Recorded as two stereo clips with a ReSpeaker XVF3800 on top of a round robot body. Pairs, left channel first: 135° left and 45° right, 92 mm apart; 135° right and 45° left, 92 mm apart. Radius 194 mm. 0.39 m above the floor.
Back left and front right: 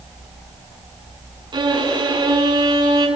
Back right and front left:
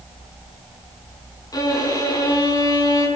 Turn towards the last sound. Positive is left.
turn(degrees=-85)